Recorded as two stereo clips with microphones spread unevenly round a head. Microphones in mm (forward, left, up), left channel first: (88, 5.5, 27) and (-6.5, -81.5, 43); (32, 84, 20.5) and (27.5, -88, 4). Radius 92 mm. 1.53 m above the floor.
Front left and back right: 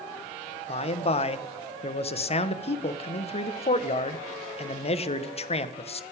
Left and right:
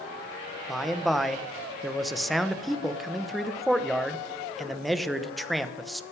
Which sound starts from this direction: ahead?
A man speaking, at 0.7 s.